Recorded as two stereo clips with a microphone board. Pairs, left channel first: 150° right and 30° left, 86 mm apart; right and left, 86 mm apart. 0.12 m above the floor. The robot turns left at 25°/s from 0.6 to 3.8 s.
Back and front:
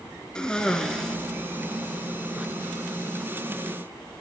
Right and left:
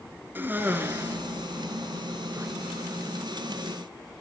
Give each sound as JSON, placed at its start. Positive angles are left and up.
{"t": 0.3, "sound": "a cough", "azimuth_deg": 135, "distance_m": 1.5}